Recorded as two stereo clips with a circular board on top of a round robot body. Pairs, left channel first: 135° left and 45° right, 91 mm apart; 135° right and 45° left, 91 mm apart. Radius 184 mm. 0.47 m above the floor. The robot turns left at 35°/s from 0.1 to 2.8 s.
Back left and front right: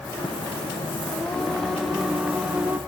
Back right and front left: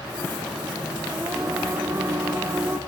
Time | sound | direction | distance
1.1 | singing | 70° left | 0.8 m